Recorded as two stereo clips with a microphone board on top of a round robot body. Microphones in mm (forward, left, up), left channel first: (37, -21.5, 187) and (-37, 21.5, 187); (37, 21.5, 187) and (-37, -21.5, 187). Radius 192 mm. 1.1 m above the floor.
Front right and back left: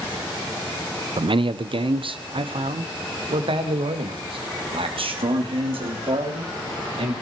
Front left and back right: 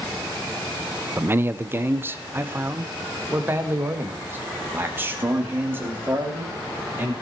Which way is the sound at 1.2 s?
150° left.